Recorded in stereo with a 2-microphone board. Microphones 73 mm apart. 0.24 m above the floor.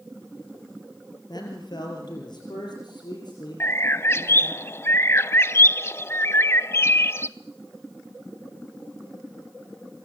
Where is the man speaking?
65° left (ahead or behind), 4 m; by 4.6 s 70° left (ahead or behind), 7.5 m.